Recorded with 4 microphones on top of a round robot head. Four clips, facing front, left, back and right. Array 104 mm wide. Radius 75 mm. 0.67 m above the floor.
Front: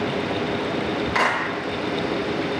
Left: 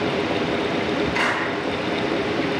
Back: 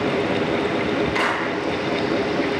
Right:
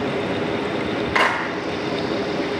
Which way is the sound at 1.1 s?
55° right.